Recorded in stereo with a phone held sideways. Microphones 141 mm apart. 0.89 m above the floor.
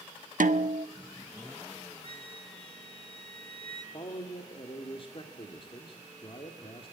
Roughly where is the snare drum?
Right.